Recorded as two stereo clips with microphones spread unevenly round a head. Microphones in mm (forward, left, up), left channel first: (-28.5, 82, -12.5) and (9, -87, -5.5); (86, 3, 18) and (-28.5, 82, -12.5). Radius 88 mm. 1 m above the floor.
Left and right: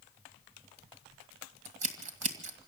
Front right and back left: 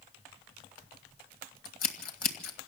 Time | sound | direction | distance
1.6 | scissors | 30° right | 2 m